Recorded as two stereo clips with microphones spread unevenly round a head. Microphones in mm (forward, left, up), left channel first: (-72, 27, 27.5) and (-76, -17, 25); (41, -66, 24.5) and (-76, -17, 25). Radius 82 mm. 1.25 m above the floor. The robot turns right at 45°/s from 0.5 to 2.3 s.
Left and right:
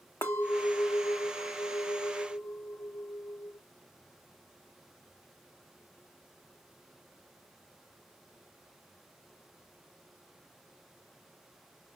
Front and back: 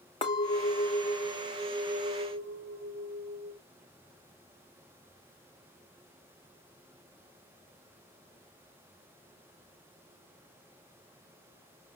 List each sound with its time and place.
0.2 s a clink: 40° left, 0.6 m; by 3.6 s 125° left, 0.6 m